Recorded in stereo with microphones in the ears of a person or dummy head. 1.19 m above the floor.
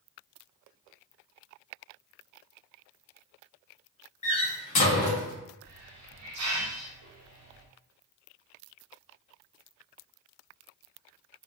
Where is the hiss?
85° right, 0.9 m.